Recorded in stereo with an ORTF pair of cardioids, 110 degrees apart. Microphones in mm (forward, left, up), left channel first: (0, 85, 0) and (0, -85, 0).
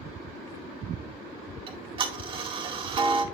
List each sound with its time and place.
1.7 s ticking: 30° right, 1.7 m